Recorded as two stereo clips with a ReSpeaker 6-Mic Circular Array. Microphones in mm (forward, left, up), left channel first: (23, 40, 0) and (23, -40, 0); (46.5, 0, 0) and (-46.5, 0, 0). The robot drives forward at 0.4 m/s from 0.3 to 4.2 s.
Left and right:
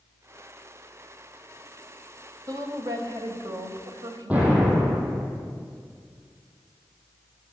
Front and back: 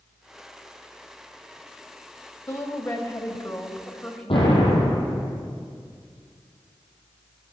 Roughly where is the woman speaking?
Ahead right.